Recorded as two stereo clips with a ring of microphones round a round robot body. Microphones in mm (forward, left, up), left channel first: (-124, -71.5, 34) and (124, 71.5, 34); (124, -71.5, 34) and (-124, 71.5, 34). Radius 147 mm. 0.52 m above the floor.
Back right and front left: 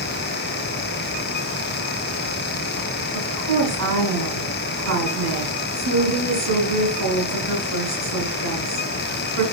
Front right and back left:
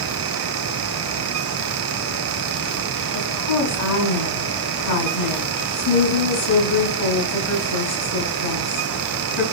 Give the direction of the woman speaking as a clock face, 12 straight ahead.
2 o'clock.